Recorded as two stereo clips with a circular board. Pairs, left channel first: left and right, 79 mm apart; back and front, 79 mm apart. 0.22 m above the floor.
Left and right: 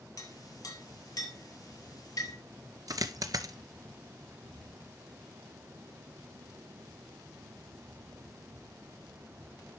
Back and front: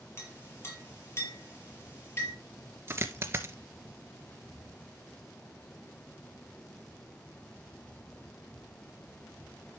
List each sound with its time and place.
0.2 s a clink: 125° left, 4 m
2.9 s a dropped coin: 55° right, 1.0 m